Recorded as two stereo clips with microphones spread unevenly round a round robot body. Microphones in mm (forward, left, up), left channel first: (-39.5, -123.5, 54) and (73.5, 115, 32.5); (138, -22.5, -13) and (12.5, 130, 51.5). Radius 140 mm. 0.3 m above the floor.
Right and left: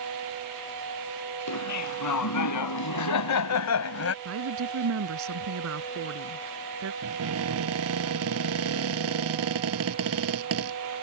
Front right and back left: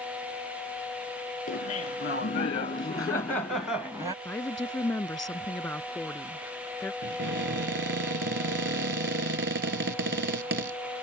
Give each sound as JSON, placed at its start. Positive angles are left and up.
{"t": 1.5, "sound": "laughter", "azimuth_deg": -100}
{"t": 4.2, "sound": "a woman speaking", "azimuth_deg": 30}
{"t": 7.0, "sound": "a cupboard door", "azimuth_deg": 100}